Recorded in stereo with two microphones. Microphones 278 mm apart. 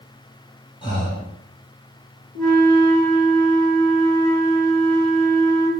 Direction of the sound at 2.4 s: 65° left (ahead or behind).